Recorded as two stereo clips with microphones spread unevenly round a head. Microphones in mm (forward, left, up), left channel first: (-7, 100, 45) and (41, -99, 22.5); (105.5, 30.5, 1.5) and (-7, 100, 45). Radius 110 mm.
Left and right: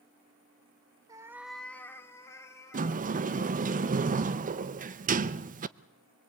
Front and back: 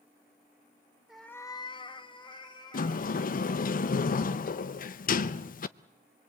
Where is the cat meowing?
155° right, 0.7 m; by 3.7 s 30° left, 3.5 m.